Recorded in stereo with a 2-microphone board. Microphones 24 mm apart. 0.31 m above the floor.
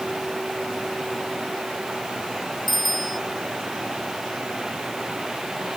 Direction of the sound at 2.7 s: 5° left (ahead or behind).